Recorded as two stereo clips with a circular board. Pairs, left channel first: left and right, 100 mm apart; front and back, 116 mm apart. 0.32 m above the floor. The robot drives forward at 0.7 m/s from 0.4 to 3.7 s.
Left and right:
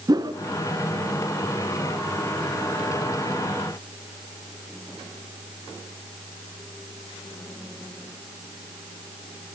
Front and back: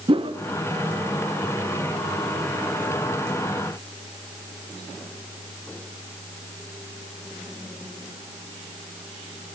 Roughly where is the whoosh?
Behind right.